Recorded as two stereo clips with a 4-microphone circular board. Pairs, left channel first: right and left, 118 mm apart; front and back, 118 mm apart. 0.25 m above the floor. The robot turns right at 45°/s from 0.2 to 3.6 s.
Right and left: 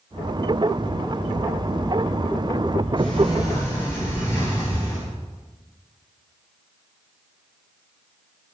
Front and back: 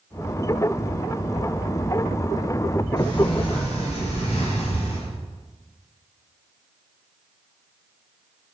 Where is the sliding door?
50° right, 1.1 m; by 5.1 s 25° right, 1.1 m.